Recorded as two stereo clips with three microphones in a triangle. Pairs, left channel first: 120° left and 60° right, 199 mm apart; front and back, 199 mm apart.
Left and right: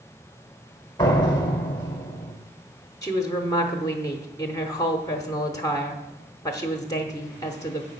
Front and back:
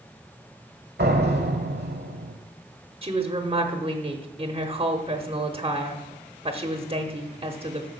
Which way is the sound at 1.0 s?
175° right.